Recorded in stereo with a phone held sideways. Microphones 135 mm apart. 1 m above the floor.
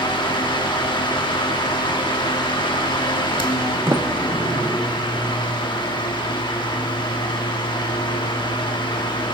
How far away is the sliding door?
About 0.8 m.